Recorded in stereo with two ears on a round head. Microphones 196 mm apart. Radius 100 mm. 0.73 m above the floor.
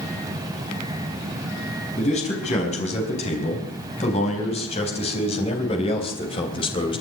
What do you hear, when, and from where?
2.0 s a man speaking: 30° left (ahead or behind), 5.5 m; by 7.0 s 25° left (ahead or behind), 3 m